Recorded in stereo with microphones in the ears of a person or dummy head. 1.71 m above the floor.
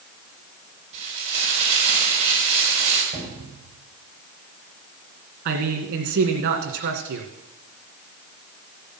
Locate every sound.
0.9 s frying: 40° right (ahead or behind), 4.5 m
3.1 s a cupboard door: 35° right (ahead or behind), 5.5 m
5.5 s a man speaking: 60° right (ahead or behind), 2 m